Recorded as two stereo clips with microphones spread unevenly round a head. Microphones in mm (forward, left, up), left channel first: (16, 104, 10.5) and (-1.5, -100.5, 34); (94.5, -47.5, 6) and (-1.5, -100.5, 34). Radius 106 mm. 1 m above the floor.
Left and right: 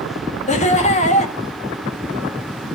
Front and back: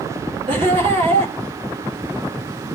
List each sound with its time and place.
0.5 s laughter: 145° left, 1.6 m